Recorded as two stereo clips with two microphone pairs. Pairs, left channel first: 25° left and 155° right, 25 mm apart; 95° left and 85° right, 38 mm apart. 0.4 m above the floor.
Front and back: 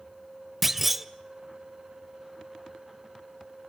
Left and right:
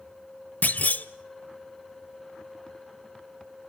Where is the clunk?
120° left, 0.7 m.